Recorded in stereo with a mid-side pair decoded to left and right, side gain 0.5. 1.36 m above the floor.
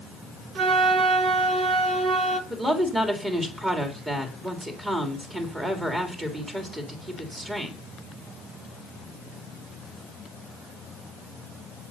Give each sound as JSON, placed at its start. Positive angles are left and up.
{"t": 0.6, "sound": "a flute", "azimuth_deg": -55, "distance_m": 1.2}
{"t": 2.5, "sound": "a woman speaking", "azimuth_deg": -20, "distance_m": 3.0}